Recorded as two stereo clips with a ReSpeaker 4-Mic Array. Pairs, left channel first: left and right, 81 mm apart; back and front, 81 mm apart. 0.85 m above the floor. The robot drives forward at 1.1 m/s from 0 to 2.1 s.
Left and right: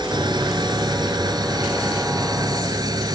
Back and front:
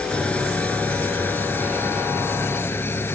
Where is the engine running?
105° right; by 3.2 s 120° right.